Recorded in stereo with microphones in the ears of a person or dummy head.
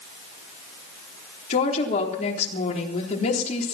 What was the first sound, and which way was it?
A woman speaking, 45° left (ahead or behind).